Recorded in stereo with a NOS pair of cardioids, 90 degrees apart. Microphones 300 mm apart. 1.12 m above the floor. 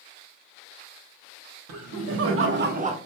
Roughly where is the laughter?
Ahead right.